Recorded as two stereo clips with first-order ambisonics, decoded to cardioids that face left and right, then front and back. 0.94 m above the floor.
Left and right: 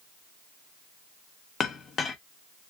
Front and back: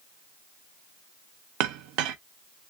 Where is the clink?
160° left, 0.5 m.